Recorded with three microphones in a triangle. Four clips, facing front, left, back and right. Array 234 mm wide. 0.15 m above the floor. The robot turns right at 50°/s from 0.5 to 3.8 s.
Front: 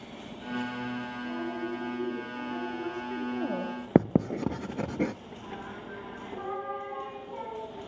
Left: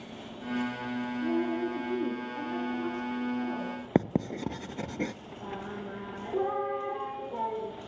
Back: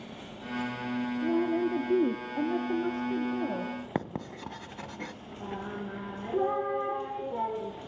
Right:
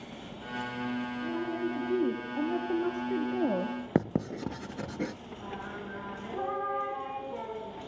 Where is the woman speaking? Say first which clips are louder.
Left 5 dB, back 9 dB; 155° left, 3.5 m; by 3.8 s 75° right, 3.5 m.